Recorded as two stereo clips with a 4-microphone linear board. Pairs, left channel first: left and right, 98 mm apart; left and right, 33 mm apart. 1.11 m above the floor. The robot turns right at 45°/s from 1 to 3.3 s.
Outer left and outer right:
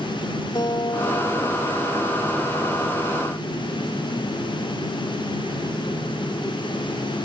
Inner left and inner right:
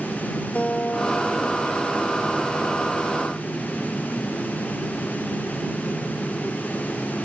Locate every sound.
0.6 s a guitar: 120° left; by 2.6 s 165° right